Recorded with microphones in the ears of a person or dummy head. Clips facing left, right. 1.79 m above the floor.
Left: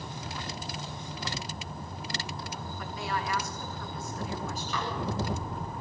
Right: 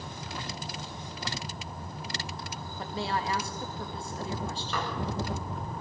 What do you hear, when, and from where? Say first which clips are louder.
2.8 s a woman speaking: right 3 dB; 30° right (ahead or behind), 3 m
4.7 s dishes clattering: right 1 dB; 50° right (ahead or behind), 7 m